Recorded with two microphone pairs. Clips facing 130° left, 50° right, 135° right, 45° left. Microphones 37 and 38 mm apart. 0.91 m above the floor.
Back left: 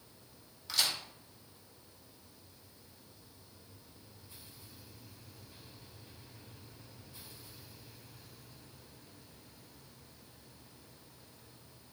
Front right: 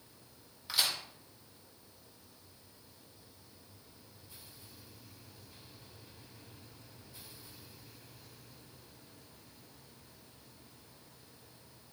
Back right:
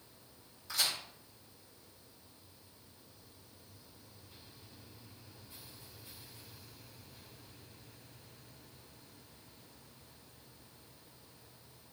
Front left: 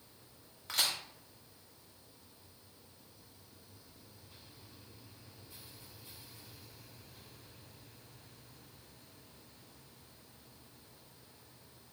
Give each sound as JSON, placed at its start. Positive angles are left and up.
{"t": 0.7, "sound": "a crack", "azimuth_deg": 20, "distance_m": 1.0}